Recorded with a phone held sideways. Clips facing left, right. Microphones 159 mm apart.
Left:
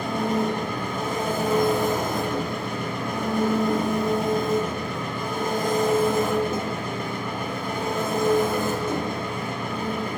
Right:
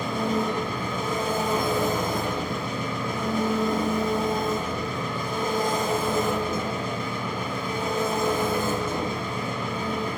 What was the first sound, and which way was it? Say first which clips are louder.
An engine running: left 2 dB; 55° left (ahead or behind).